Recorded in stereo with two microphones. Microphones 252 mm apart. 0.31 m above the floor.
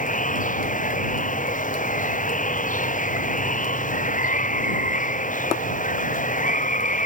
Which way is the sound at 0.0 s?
30° left (ahead or behind).